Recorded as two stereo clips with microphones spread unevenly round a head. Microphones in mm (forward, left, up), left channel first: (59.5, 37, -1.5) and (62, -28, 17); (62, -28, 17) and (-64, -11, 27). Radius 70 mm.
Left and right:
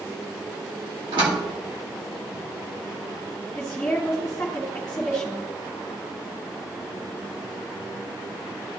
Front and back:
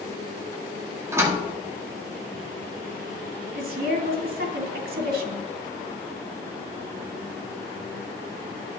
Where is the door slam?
120° right, 1.8 m.